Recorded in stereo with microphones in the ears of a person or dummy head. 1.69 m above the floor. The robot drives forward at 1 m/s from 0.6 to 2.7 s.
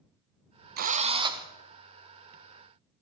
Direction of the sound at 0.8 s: 50° right (ahead or behind).